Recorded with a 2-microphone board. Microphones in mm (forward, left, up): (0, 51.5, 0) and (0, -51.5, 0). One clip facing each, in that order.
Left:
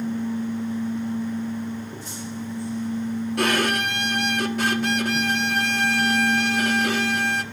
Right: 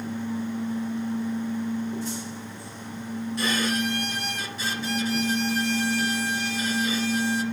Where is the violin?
65° left (ahead or behind), 1.1 m.